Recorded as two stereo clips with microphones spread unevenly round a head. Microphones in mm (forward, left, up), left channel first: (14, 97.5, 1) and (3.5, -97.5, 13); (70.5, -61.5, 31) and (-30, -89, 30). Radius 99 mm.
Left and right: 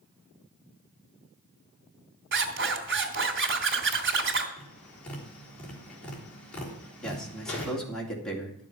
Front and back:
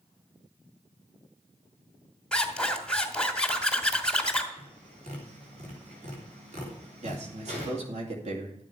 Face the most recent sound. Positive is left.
turn(degrees=175)